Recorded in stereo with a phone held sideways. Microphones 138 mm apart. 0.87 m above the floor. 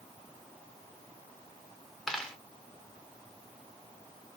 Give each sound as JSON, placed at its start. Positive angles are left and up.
{"t": 2.1, "sound": "a dropped coin", "side_deg": 5, "distance_m": 1.0}